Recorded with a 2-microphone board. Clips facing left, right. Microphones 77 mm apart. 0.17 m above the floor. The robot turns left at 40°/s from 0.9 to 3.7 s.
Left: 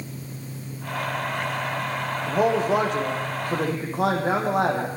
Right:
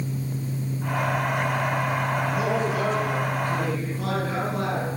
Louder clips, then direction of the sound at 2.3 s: Left 3 dB; 140° left.